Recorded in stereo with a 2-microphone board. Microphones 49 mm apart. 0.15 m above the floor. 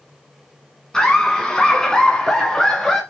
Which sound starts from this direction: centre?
Laughter, at 0.9 s.